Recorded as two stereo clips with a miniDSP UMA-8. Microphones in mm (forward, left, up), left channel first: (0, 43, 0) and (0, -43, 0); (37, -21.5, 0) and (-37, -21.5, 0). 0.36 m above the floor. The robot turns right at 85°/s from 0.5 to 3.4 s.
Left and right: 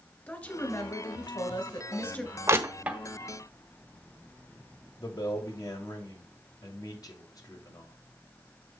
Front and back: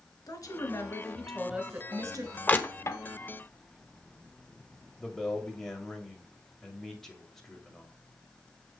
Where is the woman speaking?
15° left, 1.7 m; by 2.4 s 175° left, 1.7 m.